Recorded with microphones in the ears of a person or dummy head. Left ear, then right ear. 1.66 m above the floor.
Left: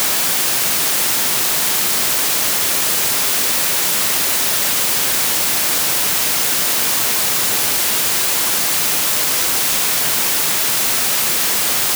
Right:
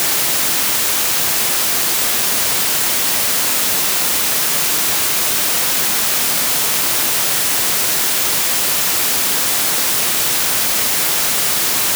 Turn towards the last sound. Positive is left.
No sound to turn to.